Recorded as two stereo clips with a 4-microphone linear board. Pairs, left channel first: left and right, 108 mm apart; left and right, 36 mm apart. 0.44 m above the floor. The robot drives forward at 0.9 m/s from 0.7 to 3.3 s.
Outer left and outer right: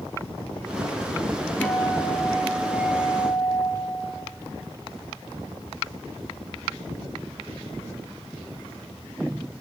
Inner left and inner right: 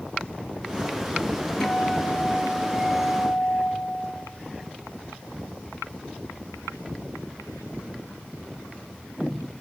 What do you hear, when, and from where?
1.6 s a guitar: 15° left (ahead or behind), 4.5 m; by 3.7 s 20° left (ahead or behind), 3 m